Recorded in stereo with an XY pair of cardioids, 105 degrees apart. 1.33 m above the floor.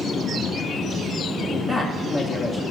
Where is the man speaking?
35° left, 2.5 m.